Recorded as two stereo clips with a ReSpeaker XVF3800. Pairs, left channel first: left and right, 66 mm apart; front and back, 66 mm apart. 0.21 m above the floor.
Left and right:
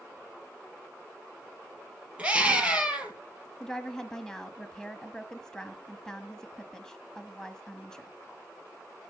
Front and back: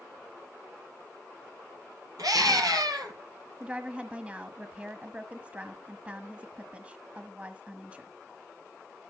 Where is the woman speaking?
150° left, 1.2 m.